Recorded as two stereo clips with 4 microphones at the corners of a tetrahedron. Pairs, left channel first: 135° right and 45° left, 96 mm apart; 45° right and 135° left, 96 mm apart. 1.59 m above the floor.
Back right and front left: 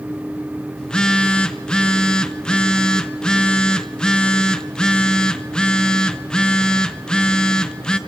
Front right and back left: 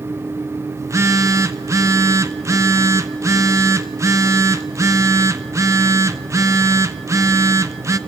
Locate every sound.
0.8 s a phone buzzing: 150° left, 0.8 m